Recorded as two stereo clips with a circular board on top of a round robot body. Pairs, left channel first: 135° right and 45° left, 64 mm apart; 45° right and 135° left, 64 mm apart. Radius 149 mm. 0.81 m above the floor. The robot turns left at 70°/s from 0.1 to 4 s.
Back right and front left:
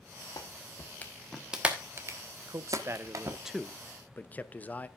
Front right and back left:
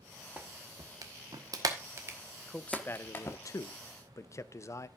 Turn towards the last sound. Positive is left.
turn(degrees=-75)